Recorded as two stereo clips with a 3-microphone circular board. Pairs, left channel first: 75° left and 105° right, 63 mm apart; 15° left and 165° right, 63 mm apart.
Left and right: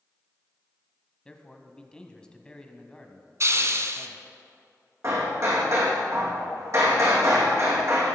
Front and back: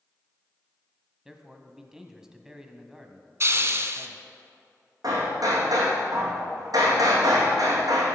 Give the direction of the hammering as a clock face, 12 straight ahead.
5 o'clock.